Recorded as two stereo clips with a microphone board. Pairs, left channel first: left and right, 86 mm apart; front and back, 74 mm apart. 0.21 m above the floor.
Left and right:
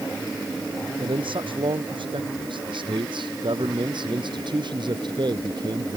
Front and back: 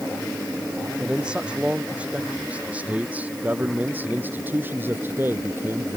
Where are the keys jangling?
I don't hear keys jangling.